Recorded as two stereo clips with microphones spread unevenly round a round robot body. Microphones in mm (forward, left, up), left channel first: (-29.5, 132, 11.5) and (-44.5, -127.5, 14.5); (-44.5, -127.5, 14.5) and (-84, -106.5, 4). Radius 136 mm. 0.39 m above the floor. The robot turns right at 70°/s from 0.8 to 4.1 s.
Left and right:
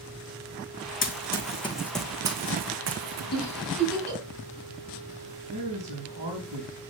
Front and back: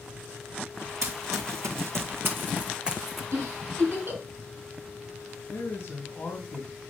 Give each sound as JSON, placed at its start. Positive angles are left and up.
{"t": 1.0, "sound": "running footsteps", "azimuth_deg": 130, "distance_m": 1.3}
{"t": 3.3, "sound": "a giggle", "azimuth_deg": 135, "distance_m": 5.5}
{"t": 5.5, "sound": "a man speaking", "azimuth_deg": -60, "distance_m": 3.0}